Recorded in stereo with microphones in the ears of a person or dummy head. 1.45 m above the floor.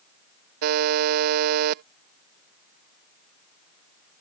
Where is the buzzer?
50° right (ahead or behind).